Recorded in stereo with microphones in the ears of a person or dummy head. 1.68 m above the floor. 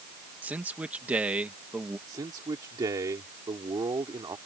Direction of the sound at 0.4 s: 5° right (ahead or behind).